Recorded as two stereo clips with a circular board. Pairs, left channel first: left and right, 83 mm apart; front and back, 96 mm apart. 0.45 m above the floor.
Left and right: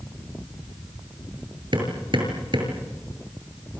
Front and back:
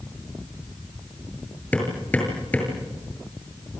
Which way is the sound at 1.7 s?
75° right.